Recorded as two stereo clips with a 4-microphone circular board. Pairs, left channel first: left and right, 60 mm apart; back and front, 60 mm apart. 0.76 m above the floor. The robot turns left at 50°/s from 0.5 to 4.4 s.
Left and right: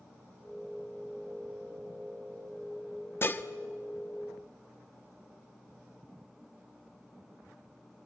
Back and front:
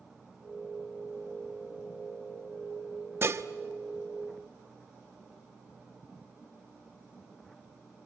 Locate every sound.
3.2 s dishes clattering: 45° left, 0.7 m; by 3.4 s 35° left, 0.7 m